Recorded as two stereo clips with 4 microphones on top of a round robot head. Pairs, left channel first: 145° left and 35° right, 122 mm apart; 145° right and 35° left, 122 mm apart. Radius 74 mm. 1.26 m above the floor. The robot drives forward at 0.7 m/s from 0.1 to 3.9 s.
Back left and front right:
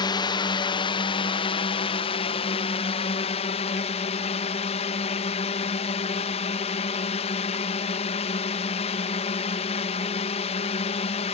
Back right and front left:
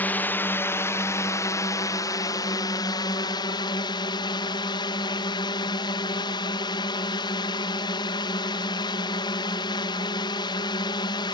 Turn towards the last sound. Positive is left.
turn(degrees=170)